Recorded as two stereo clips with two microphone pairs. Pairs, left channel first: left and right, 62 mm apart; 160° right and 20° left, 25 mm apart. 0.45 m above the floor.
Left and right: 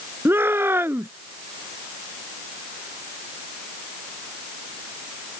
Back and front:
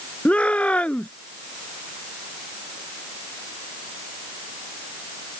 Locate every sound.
0.2 s a shout: 135° right